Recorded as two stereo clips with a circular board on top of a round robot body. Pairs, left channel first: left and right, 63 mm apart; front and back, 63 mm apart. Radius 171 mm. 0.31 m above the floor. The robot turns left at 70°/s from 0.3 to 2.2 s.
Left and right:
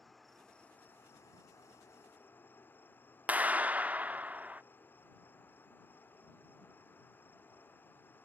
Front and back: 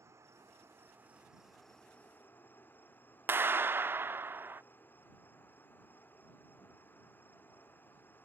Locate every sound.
0.0 s an insect: straight behind; by 8.2 s 45° left
3.3 s a clap: 145° right